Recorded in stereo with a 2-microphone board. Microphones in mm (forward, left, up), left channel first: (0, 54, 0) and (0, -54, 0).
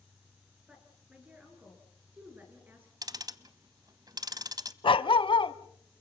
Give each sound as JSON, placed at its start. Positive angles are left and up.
{"t": 0.7, "sound": "a woman speaking", "side_deg": -10, "distance_m": 7.5}
{"t": 3.0, "sound": "ticking", "side_deg": -35, "distance_m": 0.9}
{"t": 4.8, "sound": "a dog barking", "side_deg": 55, "distance_m": 0.8}